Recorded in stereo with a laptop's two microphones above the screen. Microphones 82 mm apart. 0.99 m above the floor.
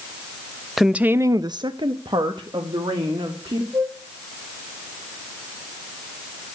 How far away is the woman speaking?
About 0.7 m.